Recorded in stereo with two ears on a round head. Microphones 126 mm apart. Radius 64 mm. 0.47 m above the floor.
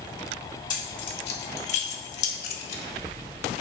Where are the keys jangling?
35° left (ahead or behind), 1.3 m.